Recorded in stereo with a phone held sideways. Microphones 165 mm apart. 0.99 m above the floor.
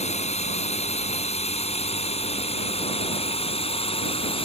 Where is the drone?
40° left (ahead or behind); by 4.5 s 35° left (ahead or behind).